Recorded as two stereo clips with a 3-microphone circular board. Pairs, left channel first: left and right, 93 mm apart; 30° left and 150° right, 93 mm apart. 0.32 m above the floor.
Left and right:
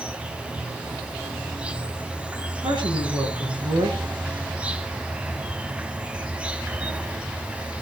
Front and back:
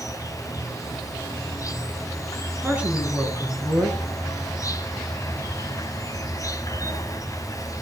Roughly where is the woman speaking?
Right.